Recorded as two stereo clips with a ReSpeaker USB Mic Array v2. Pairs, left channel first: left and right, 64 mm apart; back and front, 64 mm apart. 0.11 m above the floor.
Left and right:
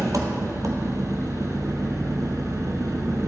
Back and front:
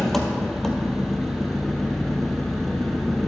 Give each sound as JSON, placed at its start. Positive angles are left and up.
{"t": 0.0, "sound": "an engine running", "azimuth_deg": -95, "distance_m": 1.1}